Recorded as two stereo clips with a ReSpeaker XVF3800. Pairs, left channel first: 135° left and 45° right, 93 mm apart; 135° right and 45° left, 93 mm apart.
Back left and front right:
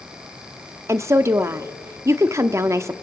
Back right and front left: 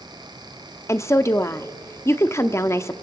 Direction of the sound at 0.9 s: 90° right.